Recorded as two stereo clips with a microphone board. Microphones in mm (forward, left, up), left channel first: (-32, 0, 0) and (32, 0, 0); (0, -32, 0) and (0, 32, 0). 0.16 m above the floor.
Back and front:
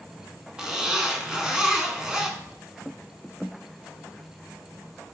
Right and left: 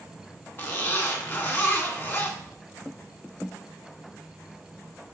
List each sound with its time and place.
0.6 s a zipper: 70° right, 0.7 m